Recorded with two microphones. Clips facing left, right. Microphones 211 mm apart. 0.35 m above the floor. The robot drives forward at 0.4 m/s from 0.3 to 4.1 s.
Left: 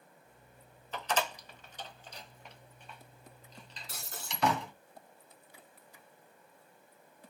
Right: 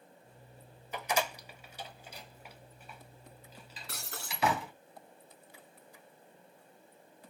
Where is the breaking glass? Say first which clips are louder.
Right 1 dB; 70° right (ahead or behind), 1.8 m.